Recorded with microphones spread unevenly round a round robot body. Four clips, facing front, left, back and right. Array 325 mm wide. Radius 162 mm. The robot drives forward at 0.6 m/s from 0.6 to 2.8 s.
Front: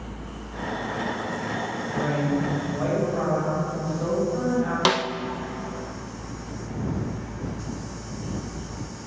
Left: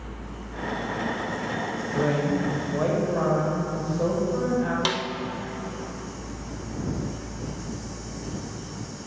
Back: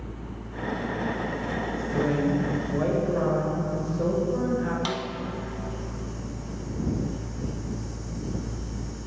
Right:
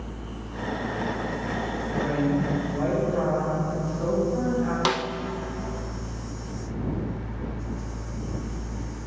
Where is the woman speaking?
135° left, 2.0 m; by 4.8 s 145° left, 2.5 m.